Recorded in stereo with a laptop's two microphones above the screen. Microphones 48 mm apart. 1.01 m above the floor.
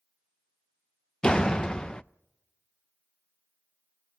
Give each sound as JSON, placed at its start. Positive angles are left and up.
{"t": 1.2, "sound": "a door slam", "side_deg": 15, "distance_m": 0.5}